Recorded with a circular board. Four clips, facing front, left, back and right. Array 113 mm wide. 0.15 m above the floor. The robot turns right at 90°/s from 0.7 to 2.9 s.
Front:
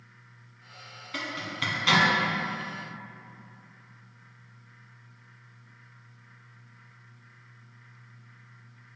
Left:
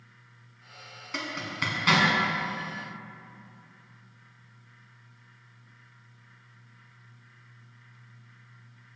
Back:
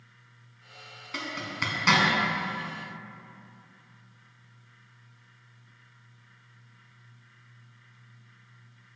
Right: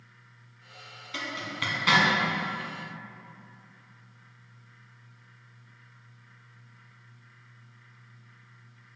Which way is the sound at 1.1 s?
110° left.